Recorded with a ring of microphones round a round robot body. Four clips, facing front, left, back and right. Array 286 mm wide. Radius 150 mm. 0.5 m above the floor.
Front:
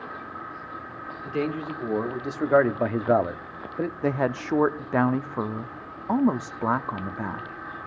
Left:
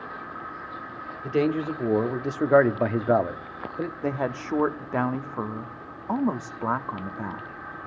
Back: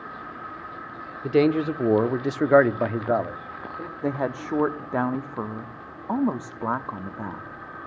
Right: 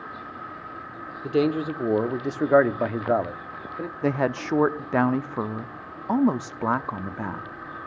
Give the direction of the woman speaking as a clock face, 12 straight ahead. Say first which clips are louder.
Right 6 dB, even; 2 o'clock.